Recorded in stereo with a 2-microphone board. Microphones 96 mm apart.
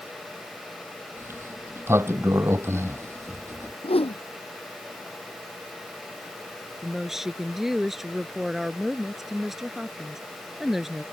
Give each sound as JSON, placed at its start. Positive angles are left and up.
{"t": 1.2, "sound": "a sliding door", "side_deg": -25}
{"t": 3.8, "sound": "a whoosh", "side_deg": 80}
{"t": 6.8, "sound": "a woman speaking", "side_deg": -5}